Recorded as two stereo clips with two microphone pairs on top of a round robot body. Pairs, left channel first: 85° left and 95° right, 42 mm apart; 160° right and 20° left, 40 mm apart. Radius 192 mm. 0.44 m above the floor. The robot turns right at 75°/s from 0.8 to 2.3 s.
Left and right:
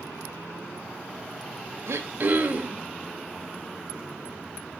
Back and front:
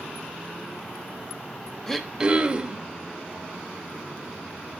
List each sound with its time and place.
1.9 s throat clearing: 80° right, 0.9 m; by 2.8 s 50° right, 0.9 m